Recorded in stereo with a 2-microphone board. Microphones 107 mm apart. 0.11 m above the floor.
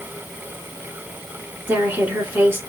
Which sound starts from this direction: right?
A woman speaking, at 1.7 s.